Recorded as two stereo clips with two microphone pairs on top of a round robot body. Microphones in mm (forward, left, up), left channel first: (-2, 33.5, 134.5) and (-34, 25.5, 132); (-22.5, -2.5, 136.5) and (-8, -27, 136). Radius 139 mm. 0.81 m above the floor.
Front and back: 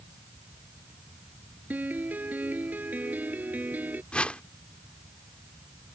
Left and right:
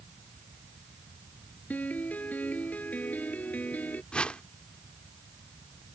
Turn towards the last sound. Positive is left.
turn(degrees=70)